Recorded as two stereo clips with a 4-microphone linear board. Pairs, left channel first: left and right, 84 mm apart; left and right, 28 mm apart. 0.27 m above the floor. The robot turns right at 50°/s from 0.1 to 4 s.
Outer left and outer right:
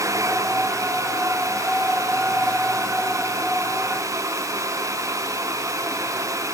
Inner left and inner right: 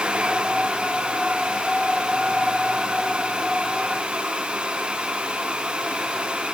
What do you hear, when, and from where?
Only background noise.